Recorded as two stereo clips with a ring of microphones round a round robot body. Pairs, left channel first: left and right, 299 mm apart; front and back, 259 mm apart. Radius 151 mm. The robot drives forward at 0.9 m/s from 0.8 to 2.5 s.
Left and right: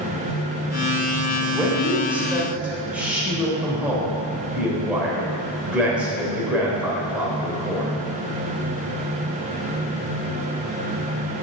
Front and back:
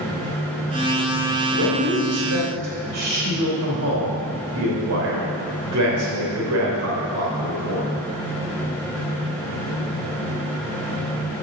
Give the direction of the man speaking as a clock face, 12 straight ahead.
6 o'clock.